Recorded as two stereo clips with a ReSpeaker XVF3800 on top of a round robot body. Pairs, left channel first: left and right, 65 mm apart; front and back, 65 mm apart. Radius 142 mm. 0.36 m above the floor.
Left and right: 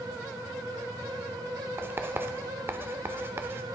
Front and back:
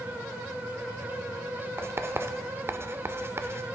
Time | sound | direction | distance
1.8 | writing | 135° right | 1.0 m